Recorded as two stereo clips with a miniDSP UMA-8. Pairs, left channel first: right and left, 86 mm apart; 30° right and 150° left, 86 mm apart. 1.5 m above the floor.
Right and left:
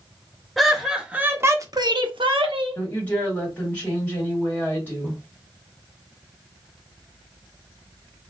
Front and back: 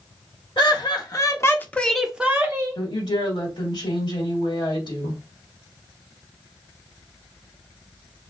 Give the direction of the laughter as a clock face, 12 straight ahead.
12 o'clock.